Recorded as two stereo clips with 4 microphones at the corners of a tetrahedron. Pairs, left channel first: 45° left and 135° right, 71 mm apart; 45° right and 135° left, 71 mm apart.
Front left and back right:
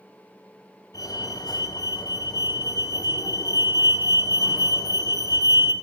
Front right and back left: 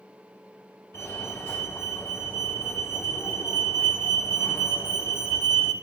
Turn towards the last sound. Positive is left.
turn(degrees=15)